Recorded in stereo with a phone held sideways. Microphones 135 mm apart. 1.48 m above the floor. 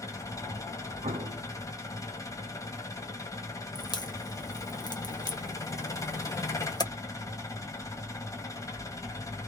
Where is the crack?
35° left (ahead or behind), 0.8 m.